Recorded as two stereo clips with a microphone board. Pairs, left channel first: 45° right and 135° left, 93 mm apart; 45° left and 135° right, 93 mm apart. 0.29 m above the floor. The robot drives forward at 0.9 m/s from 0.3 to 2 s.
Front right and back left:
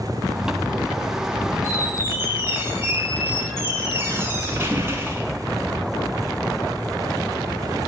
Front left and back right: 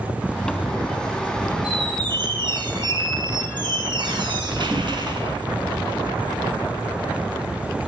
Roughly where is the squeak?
Behind.